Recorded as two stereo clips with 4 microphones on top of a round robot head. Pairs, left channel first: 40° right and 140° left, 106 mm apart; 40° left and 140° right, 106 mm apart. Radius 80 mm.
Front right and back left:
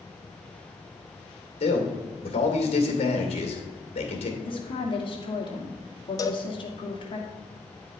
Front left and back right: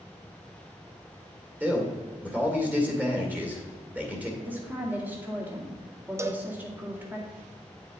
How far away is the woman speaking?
About 2 m.